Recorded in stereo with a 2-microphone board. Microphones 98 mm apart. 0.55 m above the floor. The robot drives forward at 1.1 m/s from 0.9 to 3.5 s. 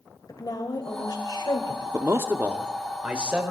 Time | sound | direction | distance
0.3 | a woman speaking | 40° left (ahead or behind) | 3 m
1.9 | a man speaking | 30° right (ahead or behind) | 0.8 m